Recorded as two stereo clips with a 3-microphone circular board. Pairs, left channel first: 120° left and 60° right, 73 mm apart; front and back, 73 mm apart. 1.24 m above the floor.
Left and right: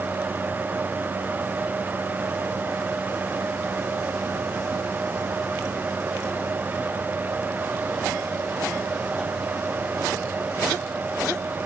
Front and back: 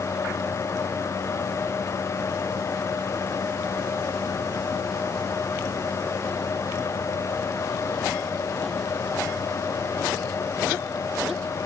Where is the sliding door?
No sliding door in this recording.